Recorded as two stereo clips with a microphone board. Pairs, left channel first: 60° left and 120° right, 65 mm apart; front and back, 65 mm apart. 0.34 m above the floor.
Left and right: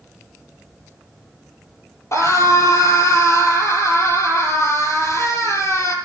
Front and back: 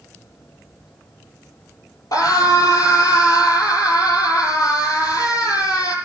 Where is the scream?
20° left, 10 m.